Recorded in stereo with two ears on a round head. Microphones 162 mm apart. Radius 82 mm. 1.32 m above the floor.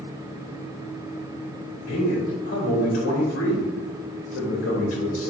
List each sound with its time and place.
1.9 s a man speaking: 75° left (ahead or behind), 2.5 m